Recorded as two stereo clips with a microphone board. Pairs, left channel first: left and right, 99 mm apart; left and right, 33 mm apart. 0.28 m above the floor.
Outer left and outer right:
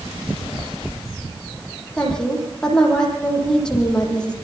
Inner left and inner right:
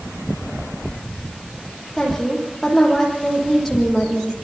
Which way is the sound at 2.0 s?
5° left (ahead or behind).